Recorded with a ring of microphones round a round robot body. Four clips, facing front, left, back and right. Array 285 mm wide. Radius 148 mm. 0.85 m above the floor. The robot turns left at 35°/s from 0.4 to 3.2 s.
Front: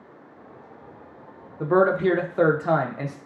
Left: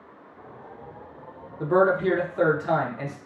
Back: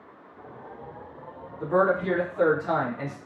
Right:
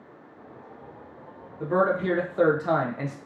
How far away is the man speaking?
About 0.6 m.